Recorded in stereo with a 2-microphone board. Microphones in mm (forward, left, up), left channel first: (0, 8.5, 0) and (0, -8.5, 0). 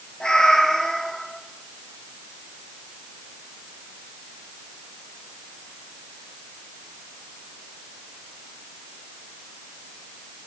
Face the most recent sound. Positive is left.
turn(degrees=70)  # may be behind; listen again after turning